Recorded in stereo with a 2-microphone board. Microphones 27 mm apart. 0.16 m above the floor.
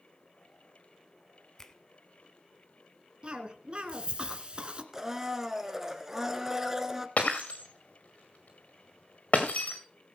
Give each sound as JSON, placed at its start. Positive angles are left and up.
{"t": 1.6, "sound": "a finger snap", "side_deg": 15, "distance_m": 1.0}
{"t": 3.2, "sound": "a cough", "side_deg": -35, "distance_m": 1.5}
{"t": 4.9, "sound": "a blender", "side_deg": -15, "distance_m": 1.1}
{"t": 7.2, "sound": "breaking glass", "side_deg": 60, "distance_m": 2.5}